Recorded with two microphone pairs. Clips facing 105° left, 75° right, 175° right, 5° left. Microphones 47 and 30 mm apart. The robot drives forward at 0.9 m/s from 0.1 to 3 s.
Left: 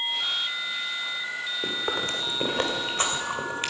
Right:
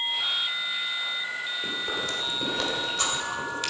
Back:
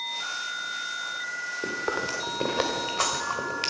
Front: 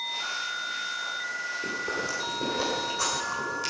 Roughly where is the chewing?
Behind left.